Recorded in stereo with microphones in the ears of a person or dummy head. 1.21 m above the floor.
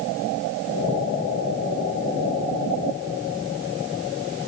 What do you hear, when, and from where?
Only background noise.